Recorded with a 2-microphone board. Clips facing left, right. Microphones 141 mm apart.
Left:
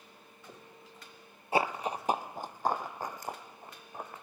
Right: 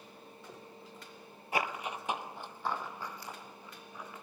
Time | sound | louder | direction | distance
1.5 | running footsteps | left 5 dB | 30° left (ahead or behind) | 0.7 m